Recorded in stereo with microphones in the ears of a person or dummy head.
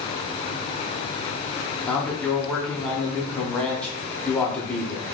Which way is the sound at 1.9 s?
10° left (ahead or behind).